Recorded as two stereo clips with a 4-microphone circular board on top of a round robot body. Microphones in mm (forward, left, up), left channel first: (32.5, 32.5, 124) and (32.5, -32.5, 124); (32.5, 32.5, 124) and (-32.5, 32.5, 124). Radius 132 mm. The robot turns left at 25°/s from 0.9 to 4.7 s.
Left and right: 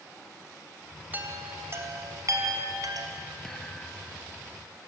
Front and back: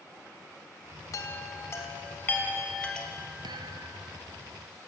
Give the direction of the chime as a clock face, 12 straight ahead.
1 o'clock.